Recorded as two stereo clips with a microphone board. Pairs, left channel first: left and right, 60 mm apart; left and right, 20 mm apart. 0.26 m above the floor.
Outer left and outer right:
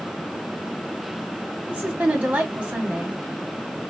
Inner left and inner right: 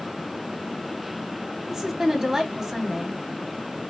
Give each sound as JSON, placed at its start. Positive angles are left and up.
{"t": 1.7, "sound": "a woman speaking", "side_deg": -25, "distance_m": 1.8}